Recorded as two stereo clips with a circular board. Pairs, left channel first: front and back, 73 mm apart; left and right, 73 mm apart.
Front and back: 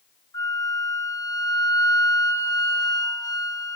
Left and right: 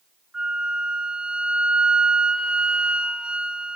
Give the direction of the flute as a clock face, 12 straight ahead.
12 o'clock.